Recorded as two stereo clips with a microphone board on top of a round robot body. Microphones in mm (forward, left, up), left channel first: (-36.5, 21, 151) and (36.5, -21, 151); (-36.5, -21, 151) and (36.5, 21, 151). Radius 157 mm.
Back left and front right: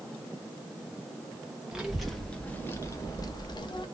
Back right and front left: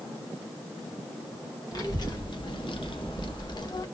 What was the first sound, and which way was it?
A child speaking, 110° right.